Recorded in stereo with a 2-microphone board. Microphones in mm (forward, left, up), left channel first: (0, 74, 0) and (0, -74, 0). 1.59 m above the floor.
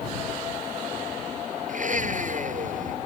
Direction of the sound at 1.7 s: 60° right (ahead or behind).